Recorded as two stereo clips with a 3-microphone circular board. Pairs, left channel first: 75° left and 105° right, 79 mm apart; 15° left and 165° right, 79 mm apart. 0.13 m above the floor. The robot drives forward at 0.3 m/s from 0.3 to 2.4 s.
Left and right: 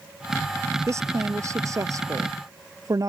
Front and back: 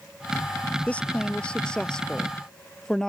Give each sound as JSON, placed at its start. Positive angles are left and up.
{"t": 0.9, "sound": "a woman speaking", "azimuth_deg": -60}